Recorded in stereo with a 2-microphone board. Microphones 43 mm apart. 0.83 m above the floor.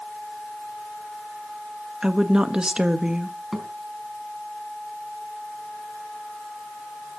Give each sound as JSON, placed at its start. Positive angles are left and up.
{"t": 2.0, "sound": "a woman speaking", "side_deg": -20, "distance_m": 1.0}
{"t": 3.5, "sound": "a thud", "side_deg": -5, "distance_m": 3.5}